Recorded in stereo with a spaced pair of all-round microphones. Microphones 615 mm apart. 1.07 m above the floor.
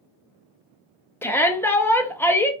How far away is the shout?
About 0.6 m.